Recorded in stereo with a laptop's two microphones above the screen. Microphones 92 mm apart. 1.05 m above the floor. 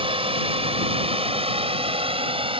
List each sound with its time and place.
0.0 s a drone: 70° right (ahead or behind); by 2.6 s 65° right (ahead or behind)